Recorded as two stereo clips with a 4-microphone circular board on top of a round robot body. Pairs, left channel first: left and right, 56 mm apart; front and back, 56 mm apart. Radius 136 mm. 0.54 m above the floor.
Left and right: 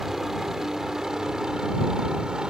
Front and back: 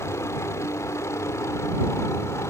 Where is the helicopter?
5° right; by 2.5 s 15° right.